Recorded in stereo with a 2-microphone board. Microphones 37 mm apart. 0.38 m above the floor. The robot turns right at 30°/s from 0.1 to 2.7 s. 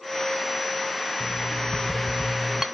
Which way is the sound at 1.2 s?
5° left (ahead or behind).